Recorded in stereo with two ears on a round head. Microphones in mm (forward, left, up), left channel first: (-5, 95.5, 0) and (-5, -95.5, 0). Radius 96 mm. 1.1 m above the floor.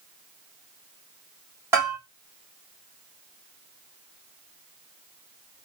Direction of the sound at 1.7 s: 10° right (ahead or behind).